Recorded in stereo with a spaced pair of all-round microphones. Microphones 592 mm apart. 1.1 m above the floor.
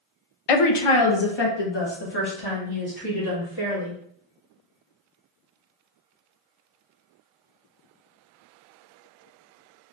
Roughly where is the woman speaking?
Left.